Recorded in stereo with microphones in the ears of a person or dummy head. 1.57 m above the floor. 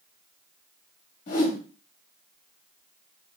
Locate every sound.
1.3 s a whoosh: 40° left (ahead or behind), 0.9 m